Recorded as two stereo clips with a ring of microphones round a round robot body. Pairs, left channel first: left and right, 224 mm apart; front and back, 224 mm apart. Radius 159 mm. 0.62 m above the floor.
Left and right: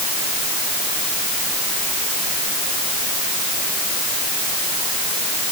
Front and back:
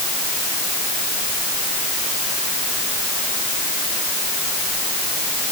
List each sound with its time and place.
Only background noise.